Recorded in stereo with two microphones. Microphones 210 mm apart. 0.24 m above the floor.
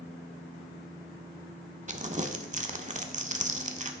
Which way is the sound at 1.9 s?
35° right (ahead or behind).